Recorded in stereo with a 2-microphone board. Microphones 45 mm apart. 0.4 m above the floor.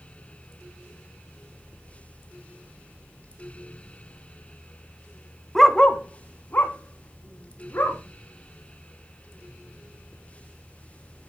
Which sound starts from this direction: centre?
A dog barking, at 5.5 s.